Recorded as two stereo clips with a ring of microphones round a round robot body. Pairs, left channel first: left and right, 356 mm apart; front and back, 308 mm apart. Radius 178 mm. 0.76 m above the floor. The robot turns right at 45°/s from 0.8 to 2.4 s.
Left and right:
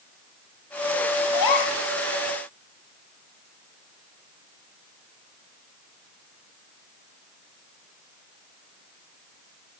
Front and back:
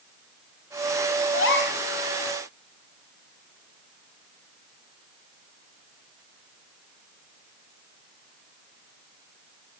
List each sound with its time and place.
1.3 s a gasp: 45° left, 1.4 m; by 1.8 s 65° left, 1.4 m